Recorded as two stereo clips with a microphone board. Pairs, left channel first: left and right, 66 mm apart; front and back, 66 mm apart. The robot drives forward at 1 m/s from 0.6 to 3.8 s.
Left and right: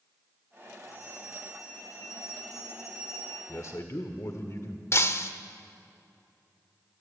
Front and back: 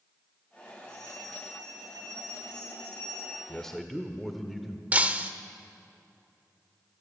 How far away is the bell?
About 9.5 m.